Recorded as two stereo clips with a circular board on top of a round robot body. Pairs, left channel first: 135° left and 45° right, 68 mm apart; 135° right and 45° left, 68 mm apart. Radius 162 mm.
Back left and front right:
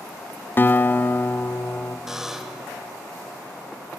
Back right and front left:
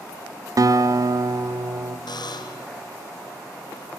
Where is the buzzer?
130° right, 1.2 m.